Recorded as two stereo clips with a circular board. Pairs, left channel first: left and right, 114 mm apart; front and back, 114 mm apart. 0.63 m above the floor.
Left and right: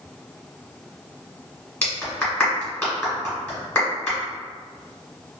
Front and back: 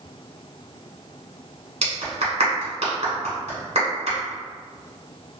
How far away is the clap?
About 1.7 m.